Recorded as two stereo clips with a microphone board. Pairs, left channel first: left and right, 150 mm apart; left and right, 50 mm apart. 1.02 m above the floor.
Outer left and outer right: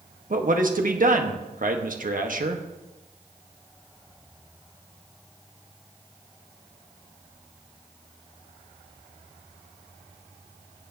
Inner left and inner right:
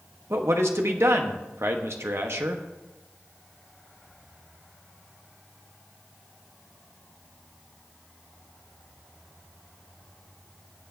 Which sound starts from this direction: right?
A man speaking, at 0.3 s.